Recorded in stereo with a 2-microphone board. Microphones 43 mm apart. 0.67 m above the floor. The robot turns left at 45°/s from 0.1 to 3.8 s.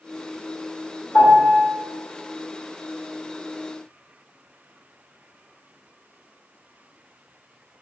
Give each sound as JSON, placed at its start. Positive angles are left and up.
{"t": 1.1, "sound": "a piano", "side_deg": 30, "distance_m": 1.6}